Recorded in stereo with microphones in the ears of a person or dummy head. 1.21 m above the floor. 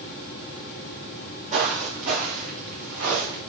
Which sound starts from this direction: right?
Footsteps, at 1.5 s.